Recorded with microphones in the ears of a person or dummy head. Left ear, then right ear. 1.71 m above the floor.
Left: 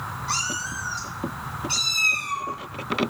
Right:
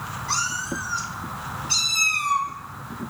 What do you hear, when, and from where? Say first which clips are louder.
0.3 s a cat meowing: right 1 dB; 35° left (ahead or behind), 1.8 m; by 2.5 s centre (ahead or behind), 1.5 m